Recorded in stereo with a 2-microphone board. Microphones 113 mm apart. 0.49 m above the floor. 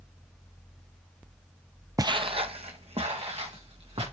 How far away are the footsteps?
About 0.5 m.